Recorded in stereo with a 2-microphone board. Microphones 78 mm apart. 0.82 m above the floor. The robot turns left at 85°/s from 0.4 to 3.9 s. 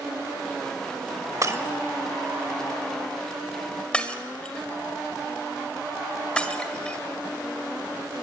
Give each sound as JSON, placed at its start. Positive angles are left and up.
{"t": 1.4, "sound": "breaking glass", "side_deg": -45, "distance_m": 1.4}